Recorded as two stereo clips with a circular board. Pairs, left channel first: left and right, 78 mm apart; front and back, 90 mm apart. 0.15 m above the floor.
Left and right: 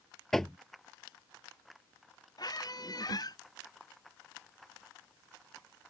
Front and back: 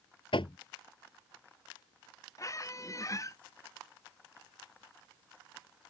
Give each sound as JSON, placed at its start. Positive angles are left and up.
{"t": 0.3, "sound": "knocking", "azimuth_deg": 5}
{"t": 2.4, "sound": "a squeak", "azimuth_deg": 55}